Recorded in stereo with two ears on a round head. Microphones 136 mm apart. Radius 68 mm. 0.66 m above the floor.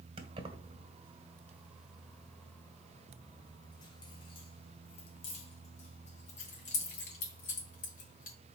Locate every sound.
0.2 s keys jangling: 40° right (ahead or behind), 1.6 m; by 8.3 s 60° left (ahead or behind), 4 m